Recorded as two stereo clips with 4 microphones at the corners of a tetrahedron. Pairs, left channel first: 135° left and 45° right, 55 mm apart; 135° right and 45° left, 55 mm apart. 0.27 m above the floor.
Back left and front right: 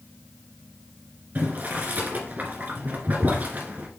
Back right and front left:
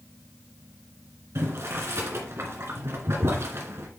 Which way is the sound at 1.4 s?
10° left.